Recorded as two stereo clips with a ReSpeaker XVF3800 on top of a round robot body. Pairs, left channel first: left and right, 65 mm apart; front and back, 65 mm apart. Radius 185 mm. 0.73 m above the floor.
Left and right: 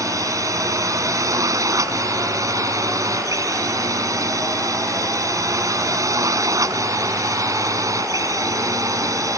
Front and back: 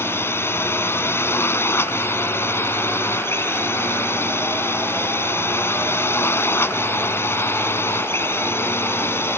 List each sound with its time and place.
0.0 s a drone: 55° right